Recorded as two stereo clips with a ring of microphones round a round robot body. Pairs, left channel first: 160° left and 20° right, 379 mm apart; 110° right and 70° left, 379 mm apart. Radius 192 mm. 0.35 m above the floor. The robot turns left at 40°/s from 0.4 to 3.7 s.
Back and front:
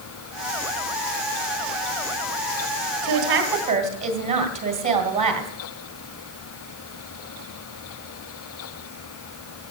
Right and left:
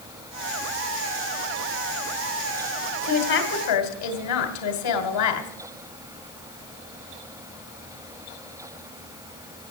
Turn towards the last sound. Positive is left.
turn(degrees=-95)